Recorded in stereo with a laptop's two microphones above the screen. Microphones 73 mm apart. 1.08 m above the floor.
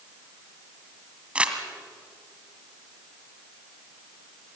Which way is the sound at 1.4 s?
15° right (ahead or behind).